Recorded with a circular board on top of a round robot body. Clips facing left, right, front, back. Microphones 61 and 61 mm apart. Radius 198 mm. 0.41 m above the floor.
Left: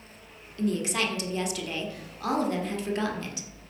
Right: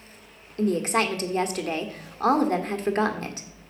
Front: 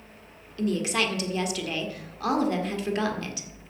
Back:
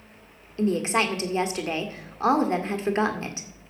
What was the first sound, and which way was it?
A woman speaking, 130° right.